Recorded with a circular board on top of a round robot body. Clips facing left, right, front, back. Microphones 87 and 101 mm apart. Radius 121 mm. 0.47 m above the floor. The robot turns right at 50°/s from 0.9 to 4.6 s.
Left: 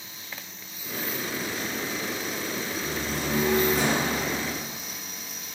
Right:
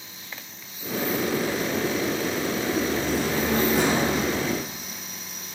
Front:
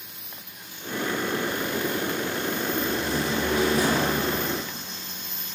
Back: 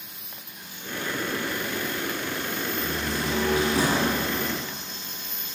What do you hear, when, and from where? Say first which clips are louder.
2.8 s a door slam: right 7 dB, front 3 dB; 130° left, 4 m; by 4.2 s 160° right, 4 m